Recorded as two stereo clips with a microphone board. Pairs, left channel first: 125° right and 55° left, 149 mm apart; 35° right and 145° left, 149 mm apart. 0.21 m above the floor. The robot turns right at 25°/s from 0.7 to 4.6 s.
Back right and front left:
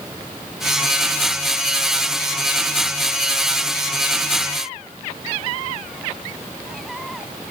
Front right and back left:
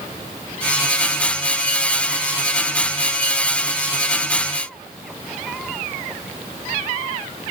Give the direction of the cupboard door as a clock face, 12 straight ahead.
No cupboard door in this recording.